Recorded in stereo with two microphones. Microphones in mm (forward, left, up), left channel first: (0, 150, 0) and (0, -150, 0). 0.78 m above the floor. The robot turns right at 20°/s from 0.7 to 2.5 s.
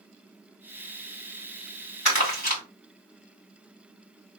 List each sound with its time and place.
2.0 s crumpling: 40° left (ahead or behind), 2 m; by 2.6 s 30° left (ahead or behind), 2 m